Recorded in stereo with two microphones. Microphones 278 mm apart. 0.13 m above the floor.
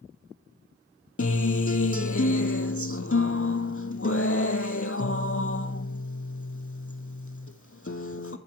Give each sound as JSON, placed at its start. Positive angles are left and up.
{"t": 1.2, "sound": "a guitar", "side_deg": 55, "distance_m": 0.7}